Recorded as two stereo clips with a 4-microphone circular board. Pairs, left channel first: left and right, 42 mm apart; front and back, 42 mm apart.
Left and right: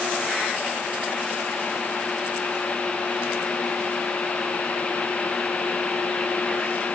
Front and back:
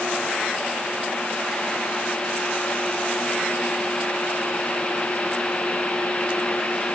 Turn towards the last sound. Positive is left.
No sound to turn to.